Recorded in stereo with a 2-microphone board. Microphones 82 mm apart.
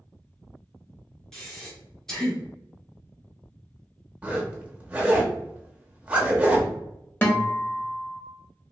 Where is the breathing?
5° left (ahead or behind), 1.0 m.